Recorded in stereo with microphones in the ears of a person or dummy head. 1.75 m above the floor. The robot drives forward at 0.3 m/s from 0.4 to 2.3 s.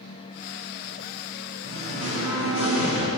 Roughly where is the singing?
Right.